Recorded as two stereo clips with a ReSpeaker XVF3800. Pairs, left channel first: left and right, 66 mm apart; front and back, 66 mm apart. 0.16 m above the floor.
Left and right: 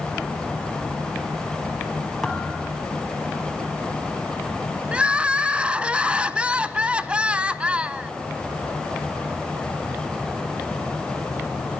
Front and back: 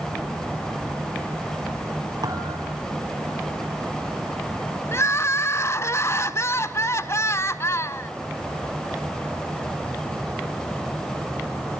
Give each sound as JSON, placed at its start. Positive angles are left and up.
{"t": 2.2, "sound": "a thud", "azimuth_deg": 180, "distance_m": 4.5}
{"t": 4.9, "sound": "crying", "azimuth_deg": -25, "distance_m": 1.0}